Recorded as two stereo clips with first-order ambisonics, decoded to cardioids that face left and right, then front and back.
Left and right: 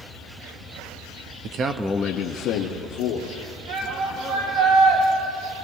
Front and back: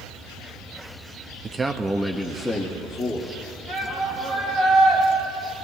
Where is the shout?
85° right, 5 m.